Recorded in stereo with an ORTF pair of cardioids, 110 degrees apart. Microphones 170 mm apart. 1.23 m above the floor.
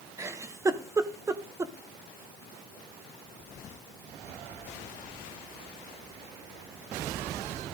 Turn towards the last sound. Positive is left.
turn(degrees=-15)